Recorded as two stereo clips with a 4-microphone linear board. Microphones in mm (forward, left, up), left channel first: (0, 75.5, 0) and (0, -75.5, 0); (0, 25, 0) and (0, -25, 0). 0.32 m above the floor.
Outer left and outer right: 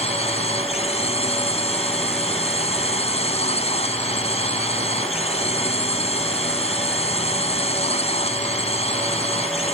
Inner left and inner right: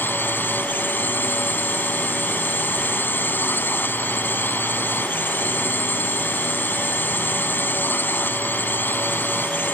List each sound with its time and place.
0.0 s a drone: 45° left (ahead or behind)